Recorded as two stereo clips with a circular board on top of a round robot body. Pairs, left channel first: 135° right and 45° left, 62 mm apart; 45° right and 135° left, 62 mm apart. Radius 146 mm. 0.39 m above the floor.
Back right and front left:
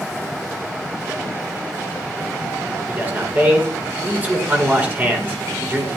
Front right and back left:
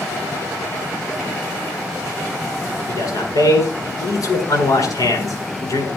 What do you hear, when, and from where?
2.9 s a man speaking: 15° right, 6.5 m